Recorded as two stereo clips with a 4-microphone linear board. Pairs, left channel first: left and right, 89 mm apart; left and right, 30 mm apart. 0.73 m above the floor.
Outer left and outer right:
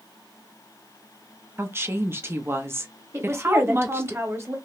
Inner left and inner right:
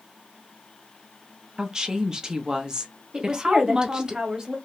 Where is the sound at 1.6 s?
25° right (ahead or behind), 0.7 m.